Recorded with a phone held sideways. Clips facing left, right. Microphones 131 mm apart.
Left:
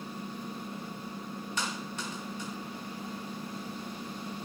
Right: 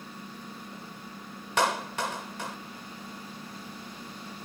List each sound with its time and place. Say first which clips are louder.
0.0 s an engine running: left 4 dB; 15° left (ahead or behind)
1.6 s a clap: right 12 dB; 80° right